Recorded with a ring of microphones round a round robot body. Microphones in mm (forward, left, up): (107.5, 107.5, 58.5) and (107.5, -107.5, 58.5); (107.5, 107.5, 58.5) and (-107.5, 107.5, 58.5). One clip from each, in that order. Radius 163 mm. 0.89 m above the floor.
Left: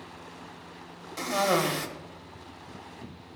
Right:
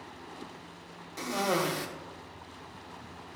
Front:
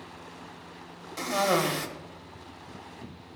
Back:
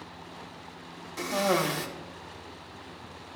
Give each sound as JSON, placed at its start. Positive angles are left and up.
{"t": 1.2, "sound": "a cough", "azimuth_deg": 60, "distance_m": 0.9}